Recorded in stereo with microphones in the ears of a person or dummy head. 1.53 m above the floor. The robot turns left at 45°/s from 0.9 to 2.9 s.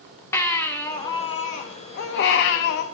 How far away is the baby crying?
About 1.0 m.